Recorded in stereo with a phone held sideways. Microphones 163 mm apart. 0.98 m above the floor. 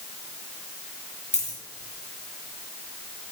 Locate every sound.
1.3 s a dropped coin: 45° left (ahead or behind), 3 m